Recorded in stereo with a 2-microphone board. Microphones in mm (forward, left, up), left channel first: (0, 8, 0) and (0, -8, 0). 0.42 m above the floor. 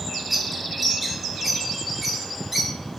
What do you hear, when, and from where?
0.3 s a bird: 5° right (ahead or behind), 3 m